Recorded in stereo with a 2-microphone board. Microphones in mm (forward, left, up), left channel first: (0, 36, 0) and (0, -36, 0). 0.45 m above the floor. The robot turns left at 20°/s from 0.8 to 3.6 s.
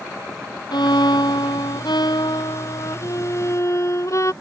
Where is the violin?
100° left; by 4.3 s 45° left.